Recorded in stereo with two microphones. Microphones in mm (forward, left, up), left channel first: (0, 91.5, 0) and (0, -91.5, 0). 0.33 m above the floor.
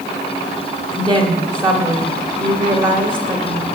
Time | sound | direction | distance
0.9 | a woman speaking | 25° right (ahead or behind) | 1.3 m